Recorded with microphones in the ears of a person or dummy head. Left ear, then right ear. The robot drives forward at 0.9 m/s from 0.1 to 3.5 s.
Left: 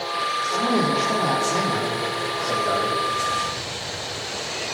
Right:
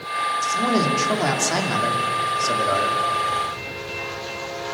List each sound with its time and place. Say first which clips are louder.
0.4 s a man speaking: even; 50° right (ahead or behind), 4.5 m; by 3.0 s 85° right, 3.5 m